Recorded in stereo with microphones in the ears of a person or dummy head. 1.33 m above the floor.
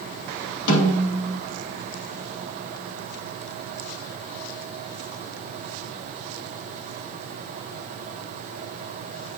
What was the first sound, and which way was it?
A snare drum, 70° left (ahead or behind).